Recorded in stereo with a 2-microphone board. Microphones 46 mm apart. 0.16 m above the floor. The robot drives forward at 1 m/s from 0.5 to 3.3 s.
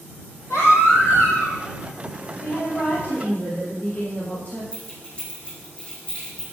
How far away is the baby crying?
About 3 m.